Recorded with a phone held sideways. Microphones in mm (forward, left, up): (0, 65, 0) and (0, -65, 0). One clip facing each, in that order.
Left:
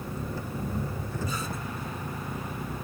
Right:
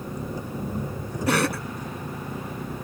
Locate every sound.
0.0 s an engine running: 15° right (ahead or behind)
1.3 s a cough: 85° right